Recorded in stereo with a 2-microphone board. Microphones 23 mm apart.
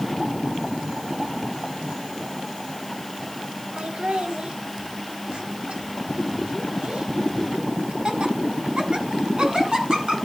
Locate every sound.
3.8 s laughter: 60° right (ahead or behind), 1.5 m; by 10.2 s 45° right (ahead or behind), 6 m